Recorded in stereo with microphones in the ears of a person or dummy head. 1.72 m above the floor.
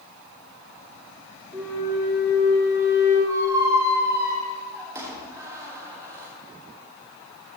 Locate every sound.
1.5 s a flute: 10° right (ahead or behind), 1.7 m
3.3 s a squeak: 15° right (ahead or behind), 1.4 m